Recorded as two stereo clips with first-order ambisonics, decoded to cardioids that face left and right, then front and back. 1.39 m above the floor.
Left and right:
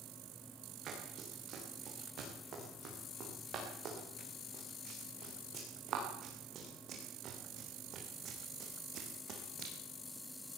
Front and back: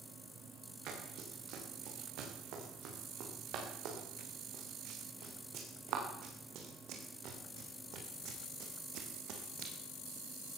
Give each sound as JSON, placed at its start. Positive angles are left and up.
{"t": 0.9, "sound": "running footsteps", "azimuth_deg": -145, "distance_m": 9.0}